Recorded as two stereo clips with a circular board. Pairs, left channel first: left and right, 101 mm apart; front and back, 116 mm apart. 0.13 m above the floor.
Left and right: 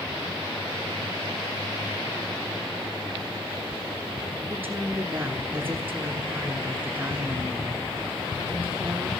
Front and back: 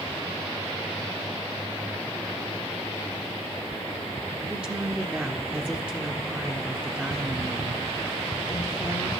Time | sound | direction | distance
4.5 | a woman speaking | 120° right | 1.2 m